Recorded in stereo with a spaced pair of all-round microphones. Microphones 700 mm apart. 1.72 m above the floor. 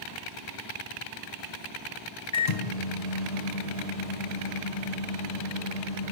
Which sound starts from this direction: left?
A microwave, at 2.3 s.